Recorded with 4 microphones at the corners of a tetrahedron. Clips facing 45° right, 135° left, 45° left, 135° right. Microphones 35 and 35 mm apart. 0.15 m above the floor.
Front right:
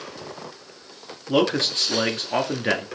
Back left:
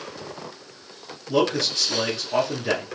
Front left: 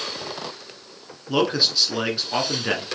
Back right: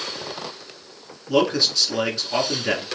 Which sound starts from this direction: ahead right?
A man speaking, at 1.3 s.